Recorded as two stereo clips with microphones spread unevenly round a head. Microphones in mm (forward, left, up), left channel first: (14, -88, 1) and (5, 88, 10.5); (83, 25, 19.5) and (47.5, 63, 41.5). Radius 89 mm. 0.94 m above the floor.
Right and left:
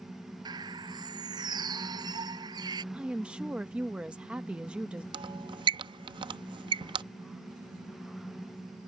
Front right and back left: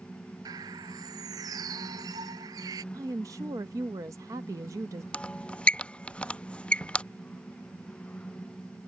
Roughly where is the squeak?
Ahead left.